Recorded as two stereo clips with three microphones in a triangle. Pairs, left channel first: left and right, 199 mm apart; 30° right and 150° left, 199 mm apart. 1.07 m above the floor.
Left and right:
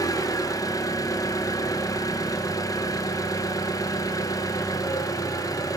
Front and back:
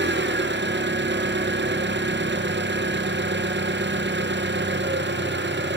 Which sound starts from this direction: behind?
An engine running, at 0.0 s.